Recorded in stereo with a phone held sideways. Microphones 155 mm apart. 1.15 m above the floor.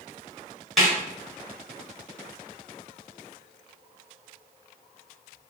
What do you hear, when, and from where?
0.8 s a snare drum: centre (ahead or behind), 1.2 m